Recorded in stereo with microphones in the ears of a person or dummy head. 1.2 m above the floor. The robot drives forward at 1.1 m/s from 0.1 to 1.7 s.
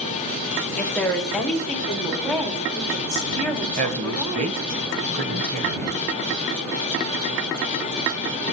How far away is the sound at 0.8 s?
About 1.3 m.